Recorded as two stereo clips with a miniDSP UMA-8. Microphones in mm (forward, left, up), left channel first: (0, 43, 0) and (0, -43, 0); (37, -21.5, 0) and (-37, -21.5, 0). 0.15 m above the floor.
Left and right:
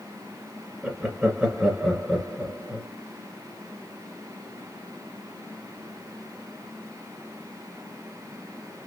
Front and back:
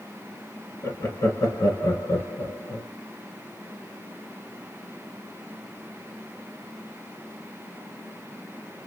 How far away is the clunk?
I don't hear a clunk.